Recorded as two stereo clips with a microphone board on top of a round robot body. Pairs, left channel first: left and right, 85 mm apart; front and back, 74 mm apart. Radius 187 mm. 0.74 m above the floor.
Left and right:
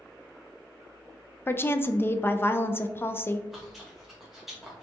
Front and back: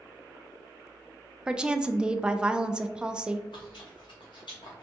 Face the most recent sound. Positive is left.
turn(degrees=-5)